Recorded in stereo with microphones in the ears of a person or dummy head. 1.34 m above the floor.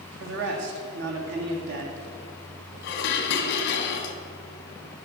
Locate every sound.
0.2 s a man speaking: 75° right (ahead or behind), 2 m
2.8 s dishes clattering: 60° left (ahead or behind), 1.3 m